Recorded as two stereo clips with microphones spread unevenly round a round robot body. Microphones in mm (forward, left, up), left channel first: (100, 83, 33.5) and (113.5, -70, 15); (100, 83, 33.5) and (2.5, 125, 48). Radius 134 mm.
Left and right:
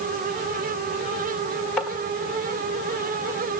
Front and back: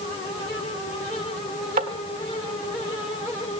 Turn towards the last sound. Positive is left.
turn(degrees=180)